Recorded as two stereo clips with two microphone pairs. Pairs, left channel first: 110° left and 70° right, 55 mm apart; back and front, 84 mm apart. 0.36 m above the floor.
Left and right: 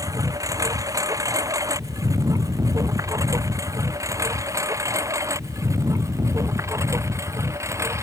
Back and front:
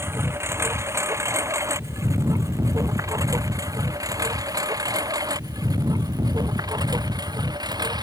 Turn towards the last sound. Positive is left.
turn(degrees=-40)